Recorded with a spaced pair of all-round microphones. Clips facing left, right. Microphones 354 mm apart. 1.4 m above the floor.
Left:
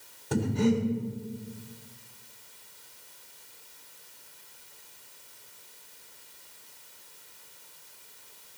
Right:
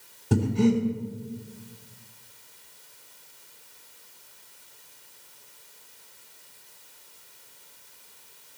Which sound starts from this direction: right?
Breathing, at 0.3 s.